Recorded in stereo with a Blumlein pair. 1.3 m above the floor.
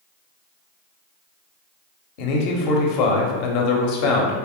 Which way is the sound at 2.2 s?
40° left.